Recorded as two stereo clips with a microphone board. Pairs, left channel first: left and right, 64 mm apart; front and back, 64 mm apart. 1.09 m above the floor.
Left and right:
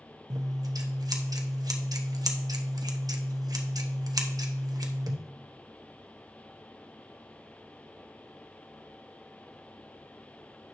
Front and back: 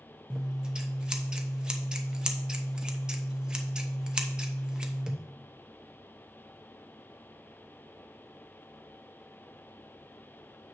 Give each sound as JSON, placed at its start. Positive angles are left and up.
{"t": 0.3, "sound": "scissors", "azimuth_deg": -105, "distance_m": 0.9}